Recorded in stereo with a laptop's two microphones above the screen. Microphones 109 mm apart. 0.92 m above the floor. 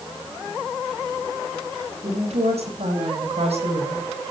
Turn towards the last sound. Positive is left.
turn(degrees=-70)  # may be behind; listen again after turning